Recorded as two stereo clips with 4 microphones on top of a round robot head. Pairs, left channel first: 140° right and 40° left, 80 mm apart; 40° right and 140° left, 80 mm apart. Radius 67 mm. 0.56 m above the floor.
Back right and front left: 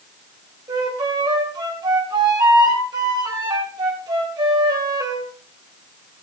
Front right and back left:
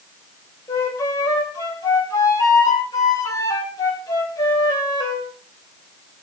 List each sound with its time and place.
0.7 s a flute: straight ahead, 5 m